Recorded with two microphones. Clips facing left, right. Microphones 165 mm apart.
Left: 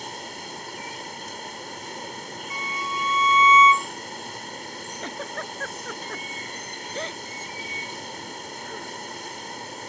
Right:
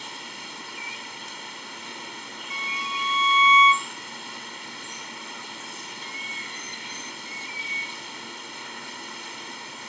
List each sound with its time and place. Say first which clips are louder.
0.0 s running water: left 5 dB; 45° left (ahead or behind)
2.5 s a violin: left 3 dB; 30° right (ahead or behind)
5.0 s a giggle: left 8 dB; 80° left